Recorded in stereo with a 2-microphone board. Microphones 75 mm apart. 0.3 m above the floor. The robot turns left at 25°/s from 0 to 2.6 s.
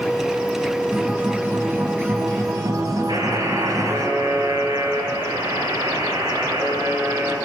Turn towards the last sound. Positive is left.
turn(degrees=-75)  # may be behind; listen again after turning